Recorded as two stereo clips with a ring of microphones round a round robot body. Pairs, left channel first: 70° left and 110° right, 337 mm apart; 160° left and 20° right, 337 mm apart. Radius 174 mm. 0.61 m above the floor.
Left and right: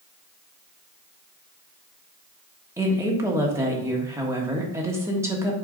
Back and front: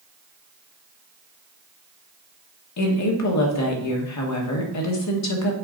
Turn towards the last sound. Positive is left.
turn(degrees=170)